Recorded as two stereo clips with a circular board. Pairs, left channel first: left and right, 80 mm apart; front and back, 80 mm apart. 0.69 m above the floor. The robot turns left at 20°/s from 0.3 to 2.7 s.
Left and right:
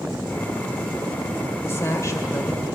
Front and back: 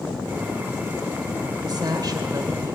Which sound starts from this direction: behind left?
A woman speaking, at 1.6 s.